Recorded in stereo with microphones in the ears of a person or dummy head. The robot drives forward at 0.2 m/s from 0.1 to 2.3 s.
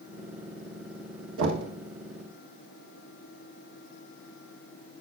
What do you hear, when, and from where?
1.4 s knocking: 85° right, 1.5 m